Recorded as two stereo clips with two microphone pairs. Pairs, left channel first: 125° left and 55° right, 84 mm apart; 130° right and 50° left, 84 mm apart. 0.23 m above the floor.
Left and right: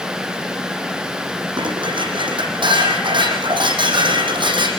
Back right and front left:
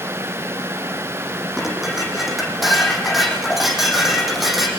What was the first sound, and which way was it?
Dishes clattering, 40° right.